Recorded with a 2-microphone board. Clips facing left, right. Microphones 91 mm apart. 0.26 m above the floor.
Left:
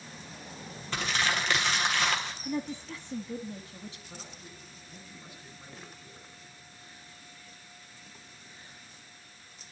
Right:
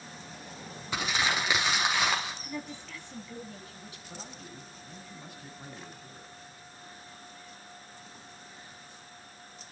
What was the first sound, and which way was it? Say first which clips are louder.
Crumpling: even; 10° right (ahead or behind).